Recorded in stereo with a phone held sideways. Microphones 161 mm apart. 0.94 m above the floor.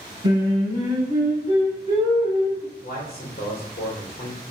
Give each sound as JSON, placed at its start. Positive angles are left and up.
{"t": 0.2, "sound": "singing", "side_deg": -25, "distance_m": 1.1}
{"t": 2.8, "sound": "a man speaking", "side_deg": 65, "distance_m": 0.8}